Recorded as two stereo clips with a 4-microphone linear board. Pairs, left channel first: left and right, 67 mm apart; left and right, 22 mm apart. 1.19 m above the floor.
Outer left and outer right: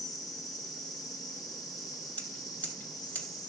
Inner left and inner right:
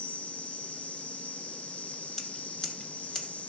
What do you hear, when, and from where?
0.0 s an insect: 80° left, 1.2 m
2.2 s scissors: 25° left (ahead or behind), 2.5 m